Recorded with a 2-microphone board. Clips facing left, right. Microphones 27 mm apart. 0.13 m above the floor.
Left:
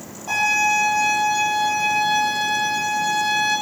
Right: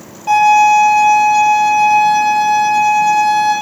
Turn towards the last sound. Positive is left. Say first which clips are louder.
# right 10 dB
turn(degrees=-65)  # may be behind; listen again after turning